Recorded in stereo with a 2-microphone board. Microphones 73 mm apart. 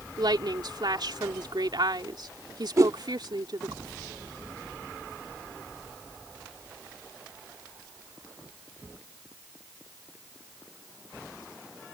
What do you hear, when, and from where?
0.2 s a woman speaking: 70° right (ahead or behind)
2.8 s a whoosh: 45° right (ahead or behind)